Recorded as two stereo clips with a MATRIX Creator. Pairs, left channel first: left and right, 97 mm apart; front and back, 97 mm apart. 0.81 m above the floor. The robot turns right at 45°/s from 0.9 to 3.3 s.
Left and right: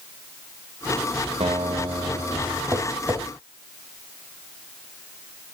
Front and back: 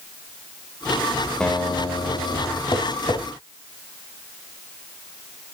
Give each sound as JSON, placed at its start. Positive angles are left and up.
{"t": 1.4, "sound": "a guitar", "azimuth_deg": -80, "distance_m": 1.2}
{"t": 2.7, "sound": "tapping", "azimuth_deg": -35, "distance_m": 1.2}